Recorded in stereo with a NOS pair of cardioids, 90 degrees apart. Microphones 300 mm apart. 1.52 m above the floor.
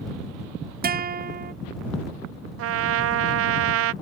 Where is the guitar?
30° right.